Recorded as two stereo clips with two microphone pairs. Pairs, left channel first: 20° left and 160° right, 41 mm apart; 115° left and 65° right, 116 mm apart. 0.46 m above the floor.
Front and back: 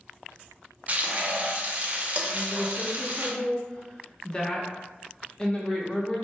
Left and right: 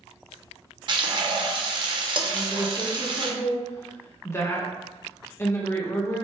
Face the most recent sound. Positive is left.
turn(degrees=75)